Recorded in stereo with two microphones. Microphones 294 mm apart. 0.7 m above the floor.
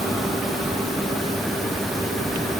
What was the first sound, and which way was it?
Only background noise.